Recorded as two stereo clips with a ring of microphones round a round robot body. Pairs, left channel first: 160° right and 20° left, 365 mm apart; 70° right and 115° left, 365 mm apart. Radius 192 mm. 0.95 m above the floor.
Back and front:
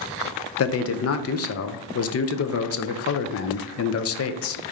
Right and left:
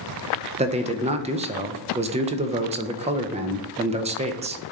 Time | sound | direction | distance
0.6 | a man speaking | 175° left | 0.5 m